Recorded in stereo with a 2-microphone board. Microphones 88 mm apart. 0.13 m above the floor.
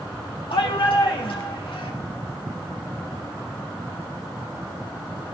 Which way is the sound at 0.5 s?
75° left (ahead or behind).